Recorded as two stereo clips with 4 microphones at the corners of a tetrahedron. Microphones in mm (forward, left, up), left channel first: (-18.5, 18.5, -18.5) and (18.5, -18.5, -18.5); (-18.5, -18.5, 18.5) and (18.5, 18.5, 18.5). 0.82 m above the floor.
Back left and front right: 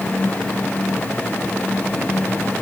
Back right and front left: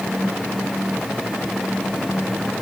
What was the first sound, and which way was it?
Only background noise.